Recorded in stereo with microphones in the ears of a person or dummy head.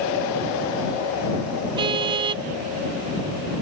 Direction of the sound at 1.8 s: 25° right (ahead or behind).